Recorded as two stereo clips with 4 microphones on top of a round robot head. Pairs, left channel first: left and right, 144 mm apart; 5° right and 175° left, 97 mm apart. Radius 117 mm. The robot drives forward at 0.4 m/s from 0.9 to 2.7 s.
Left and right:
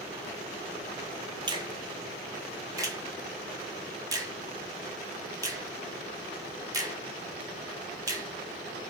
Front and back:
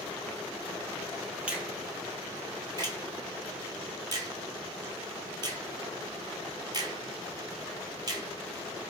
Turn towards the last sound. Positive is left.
turn(degrees=-150)